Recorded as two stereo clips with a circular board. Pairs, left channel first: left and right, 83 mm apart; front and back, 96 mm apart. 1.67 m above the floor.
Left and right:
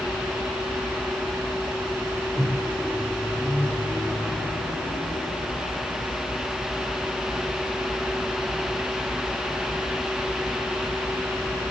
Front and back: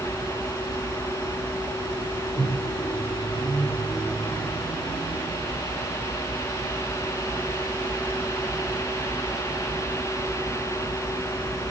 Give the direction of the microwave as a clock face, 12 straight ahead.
1 o'clock.